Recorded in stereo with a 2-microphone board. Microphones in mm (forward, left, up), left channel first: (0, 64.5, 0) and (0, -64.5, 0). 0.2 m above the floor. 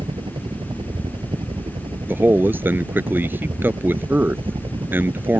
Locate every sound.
0.0 s a helicopter: 40° right (ahead or behind)
2.1 s a man speaking: 15° right (ahead or behind)